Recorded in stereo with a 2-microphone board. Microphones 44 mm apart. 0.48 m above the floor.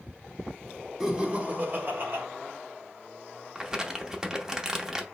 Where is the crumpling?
15° right (ahead or behind), 0.6 m.